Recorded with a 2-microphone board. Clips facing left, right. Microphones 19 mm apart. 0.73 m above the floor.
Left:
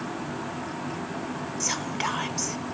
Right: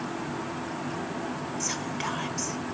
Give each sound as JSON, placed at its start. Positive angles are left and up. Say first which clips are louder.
{"t": 1.6, "sound": "whispering", "louder": "left 5 dB", "side_deg": 20, "distance_m": 0.7}